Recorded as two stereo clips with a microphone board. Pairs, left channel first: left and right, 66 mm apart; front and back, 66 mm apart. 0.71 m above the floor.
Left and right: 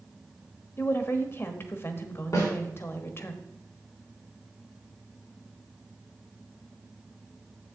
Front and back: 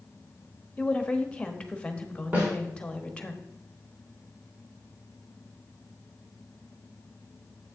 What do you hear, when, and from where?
0.8 s a woman speaking: 65° left, 1.0 m
2.3 s a snare drum: 120° left, 3.5 m